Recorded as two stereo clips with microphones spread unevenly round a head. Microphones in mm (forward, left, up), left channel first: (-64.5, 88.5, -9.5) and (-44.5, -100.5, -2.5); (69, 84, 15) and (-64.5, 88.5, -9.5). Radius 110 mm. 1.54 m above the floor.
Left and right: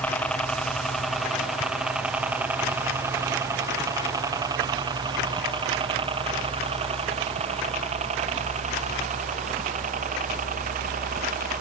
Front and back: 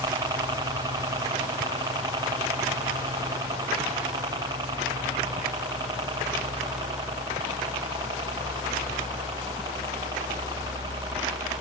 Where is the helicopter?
175° left; by 11.6 s 120° right.